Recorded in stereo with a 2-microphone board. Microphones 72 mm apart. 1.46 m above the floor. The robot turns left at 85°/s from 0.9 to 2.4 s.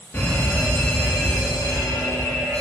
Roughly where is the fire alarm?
Behind left.